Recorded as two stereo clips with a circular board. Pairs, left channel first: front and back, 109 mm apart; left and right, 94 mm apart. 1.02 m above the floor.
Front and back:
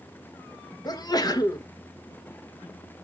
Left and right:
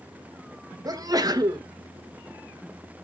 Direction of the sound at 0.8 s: 45° right.